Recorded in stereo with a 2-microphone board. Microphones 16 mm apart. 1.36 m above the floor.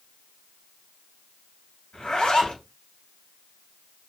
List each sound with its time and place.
1.9 s a zipper: 75° left (ahead or behind), 3.5 m